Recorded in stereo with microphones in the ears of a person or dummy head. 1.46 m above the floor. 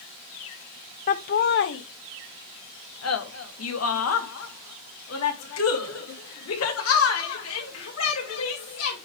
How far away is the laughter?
About 0.7 m.